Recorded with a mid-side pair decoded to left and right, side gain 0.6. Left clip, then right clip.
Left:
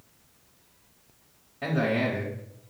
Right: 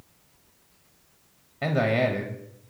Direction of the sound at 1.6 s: 35° right.